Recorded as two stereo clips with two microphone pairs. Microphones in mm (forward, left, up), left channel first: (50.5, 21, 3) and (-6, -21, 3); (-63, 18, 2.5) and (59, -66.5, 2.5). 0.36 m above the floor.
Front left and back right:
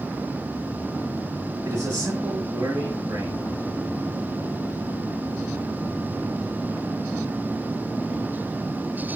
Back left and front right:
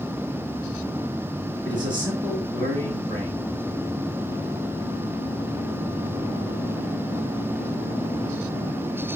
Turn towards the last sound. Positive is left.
turn(degrees=-90)